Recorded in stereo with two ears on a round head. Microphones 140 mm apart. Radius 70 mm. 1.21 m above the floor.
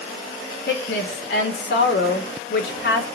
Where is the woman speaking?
70° left (ahead or behind), 4 m.